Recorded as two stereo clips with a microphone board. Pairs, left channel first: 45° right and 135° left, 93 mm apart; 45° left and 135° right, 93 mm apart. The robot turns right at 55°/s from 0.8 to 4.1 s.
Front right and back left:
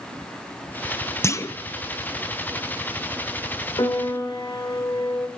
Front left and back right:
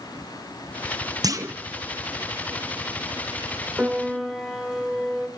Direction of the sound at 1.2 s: 100° right.